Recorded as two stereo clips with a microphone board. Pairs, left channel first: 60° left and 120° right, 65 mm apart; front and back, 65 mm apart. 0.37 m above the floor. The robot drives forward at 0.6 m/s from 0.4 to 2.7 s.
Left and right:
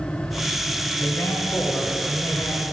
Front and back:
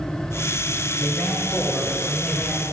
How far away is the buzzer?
I don't hear a buzzer.